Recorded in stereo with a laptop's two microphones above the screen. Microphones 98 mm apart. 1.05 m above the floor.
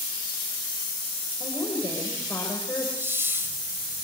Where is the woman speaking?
35° left (ahead or behind), 4.5 m.